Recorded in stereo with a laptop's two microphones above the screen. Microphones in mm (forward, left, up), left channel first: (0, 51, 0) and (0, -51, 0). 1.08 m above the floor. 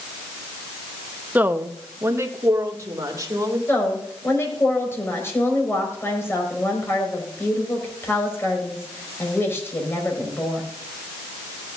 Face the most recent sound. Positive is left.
turn(degrees=25)  # may be behind; listen again after turning